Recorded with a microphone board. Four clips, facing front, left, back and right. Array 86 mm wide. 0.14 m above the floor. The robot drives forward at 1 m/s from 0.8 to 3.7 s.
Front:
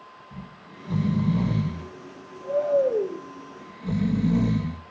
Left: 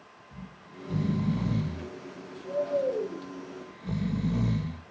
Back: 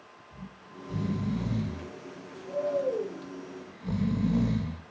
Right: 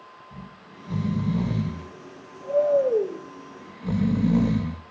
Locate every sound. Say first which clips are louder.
0.3 s snoring: even, front 2 dB; 30° right, 3.5 m; by 4.8 s 85° right, 1.8 m